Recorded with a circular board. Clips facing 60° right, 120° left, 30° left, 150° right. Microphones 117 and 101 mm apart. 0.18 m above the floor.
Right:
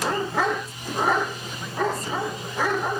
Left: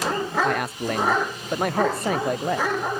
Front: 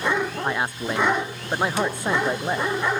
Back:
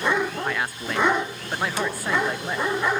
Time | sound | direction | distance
0.4 | a man speaking | 100° left | ?